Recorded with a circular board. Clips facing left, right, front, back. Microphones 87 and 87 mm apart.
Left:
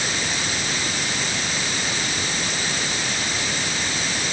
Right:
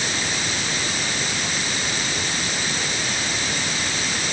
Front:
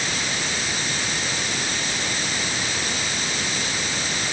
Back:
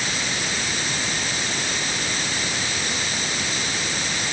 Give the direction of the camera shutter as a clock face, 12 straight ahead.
I don't hear a camera shutter.